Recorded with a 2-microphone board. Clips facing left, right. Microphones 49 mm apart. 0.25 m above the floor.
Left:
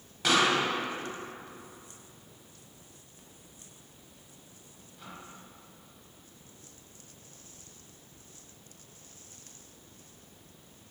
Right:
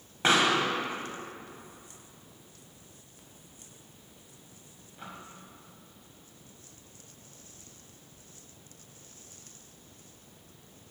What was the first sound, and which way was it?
A pop, 30° right (ahead or behind).